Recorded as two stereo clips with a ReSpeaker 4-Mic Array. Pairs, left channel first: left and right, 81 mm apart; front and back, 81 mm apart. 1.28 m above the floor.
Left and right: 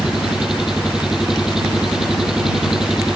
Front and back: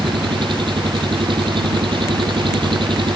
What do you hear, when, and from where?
0.0 s an engine running: 175° right